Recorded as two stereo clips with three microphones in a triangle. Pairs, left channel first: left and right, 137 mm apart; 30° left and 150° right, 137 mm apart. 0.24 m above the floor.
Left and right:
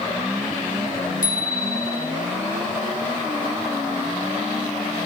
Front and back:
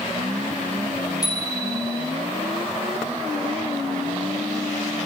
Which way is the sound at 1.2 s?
95° left.